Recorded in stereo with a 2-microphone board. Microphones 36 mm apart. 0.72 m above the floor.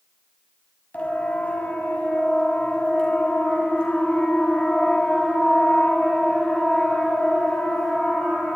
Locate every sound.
0.9 s a siren: 45° left (ahead or behind), 5.5 m; by 8.6 s 5° left (ahead or behind), 9.5 m